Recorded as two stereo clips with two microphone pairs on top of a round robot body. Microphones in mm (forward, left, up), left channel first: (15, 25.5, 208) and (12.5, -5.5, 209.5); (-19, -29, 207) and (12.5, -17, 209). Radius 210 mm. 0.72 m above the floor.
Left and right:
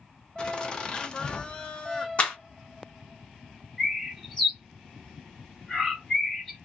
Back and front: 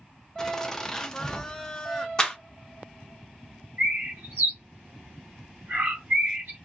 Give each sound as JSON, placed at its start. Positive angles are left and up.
{"t": 0.4, "sound": "laughter", "azimuth_deg": 140, "distance_m": 0.9}
{"t": 2.2, "sound": "a clap", "azimuth_deg": 135, "distance_m": 1.1}
{"t": 3.8, "sound": "a bird", "azimuth_deg": 5, "distance_m": 0.8}